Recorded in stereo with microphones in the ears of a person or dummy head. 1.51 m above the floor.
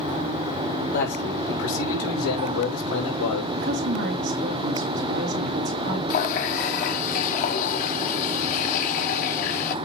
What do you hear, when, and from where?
0.9 s a man speaking: 55° left (ahead or behind), 2 m; by 3.5 s 75° left (ahead or behind), 3 m
3.6 s a woman speaking: 55° right (ahead or behind), 2.5 m
6.1 s a running tap: 45° left (ahead or behind), 0.9 m